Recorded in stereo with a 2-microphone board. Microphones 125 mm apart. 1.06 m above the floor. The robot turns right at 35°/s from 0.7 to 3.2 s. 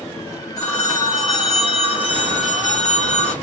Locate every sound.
0.6 s a phone ringing: 25° left, 1.9 m; by 3.3 s 110° left, 1.9 m